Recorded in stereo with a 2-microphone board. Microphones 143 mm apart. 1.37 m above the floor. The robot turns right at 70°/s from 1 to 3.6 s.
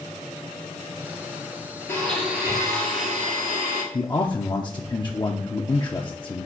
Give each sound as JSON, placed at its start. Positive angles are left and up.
{"t": 1.9, "sound": "a blender", "azimuth_deg": 160, "distance_m": 2.5}
{"t": 3.9, "sound": "a man speaking", "side_deg": 30, "distance_m": 0.6}